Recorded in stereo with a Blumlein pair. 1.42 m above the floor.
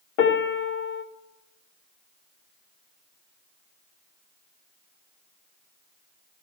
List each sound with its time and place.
0.2 s a piano: 45° left, 1.2 m